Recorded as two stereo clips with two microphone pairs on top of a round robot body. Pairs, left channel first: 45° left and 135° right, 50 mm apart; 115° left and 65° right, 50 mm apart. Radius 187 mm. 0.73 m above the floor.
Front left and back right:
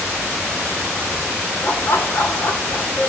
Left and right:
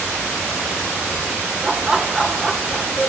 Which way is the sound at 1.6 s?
5° left.